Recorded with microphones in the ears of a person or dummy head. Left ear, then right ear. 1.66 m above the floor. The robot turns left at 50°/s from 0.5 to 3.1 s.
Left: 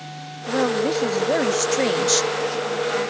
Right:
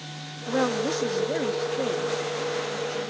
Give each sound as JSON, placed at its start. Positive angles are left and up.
{"t": 0.5, "sound": "a woman speaking", "azimuth_deg": -170}